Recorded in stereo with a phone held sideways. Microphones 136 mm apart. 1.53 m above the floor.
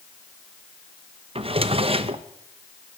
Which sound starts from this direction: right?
A drawer, at 1.4 s.